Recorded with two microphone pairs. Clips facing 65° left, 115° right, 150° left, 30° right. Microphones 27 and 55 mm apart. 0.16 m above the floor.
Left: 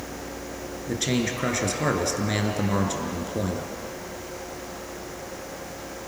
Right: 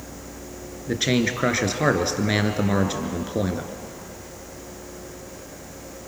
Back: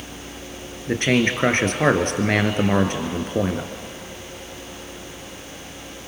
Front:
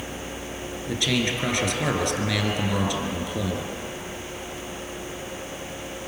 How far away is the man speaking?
About 2 m.